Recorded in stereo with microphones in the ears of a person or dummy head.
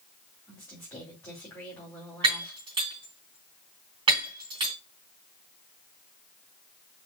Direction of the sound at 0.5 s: 15° left (ahead or behind).